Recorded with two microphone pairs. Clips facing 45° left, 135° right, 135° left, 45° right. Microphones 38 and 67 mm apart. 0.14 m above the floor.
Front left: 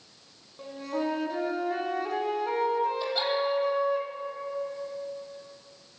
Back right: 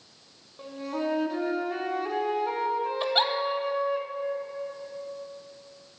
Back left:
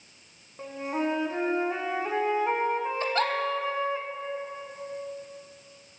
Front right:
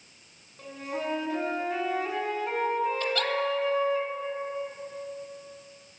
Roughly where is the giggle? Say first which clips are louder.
Back right 3 dB, back left 2 dB; behind.